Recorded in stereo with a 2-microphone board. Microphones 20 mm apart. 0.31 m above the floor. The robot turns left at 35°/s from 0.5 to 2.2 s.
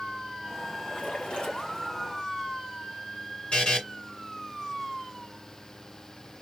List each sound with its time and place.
0.8 s a splash: 80° left, 4 m; by 1.9 s 40° left, 4 m
3.5 s a buzzer: 60° left (ahead or behind), 2.5 m